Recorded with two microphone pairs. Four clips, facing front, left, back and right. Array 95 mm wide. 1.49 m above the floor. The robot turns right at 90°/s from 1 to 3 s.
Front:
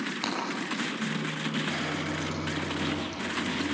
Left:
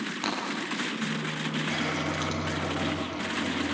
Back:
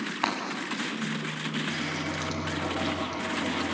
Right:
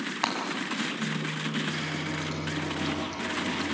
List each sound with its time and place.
0.2 s breaking glass: 140° right, 6 m
1.7 s a running tap: 50° left, 4.5 m; by 3.8 s 170° left, 4.5 m